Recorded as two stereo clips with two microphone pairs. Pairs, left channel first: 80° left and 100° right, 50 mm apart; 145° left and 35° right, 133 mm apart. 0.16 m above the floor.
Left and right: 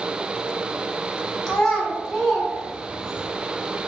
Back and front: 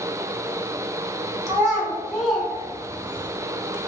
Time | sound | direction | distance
1.5 | a child speaking | 15° left | 0.8 m